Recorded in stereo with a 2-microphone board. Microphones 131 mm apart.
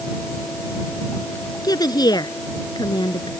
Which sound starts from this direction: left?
A woman speaking, at 1.6 s.